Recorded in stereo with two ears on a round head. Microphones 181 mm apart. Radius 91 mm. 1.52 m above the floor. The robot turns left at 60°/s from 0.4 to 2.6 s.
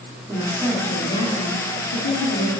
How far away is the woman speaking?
About 1.1 m.